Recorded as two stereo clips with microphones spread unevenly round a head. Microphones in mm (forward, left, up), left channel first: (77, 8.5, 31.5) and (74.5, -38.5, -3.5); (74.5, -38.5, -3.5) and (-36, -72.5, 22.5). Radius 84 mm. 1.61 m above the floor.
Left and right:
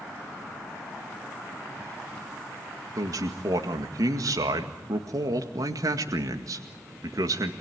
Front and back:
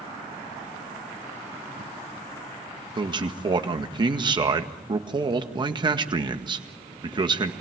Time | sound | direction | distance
3.0 | a man speaking | 115° right | 1.9 m